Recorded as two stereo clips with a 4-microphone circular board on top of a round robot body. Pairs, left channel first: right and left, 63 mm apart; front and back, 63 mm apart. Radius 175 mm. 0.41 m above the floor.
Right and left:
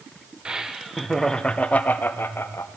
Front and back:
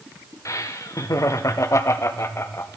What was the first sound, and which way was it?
Laughter, 20° left.